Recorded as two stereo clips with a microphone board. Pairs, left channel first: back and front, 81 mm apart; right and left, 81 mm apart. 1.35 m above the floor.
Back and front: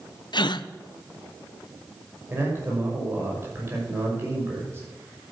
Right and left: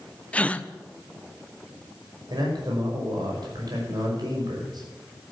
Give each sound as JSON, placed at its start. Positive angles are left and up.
{"t": 0.3, "sound": "a gasp", "azimuth_deg": -165, "distance_m": 0.6}
{"t": 2.3, "sound": "a man speaking", "azimuth_deg": 60, "distance_m": 5.5}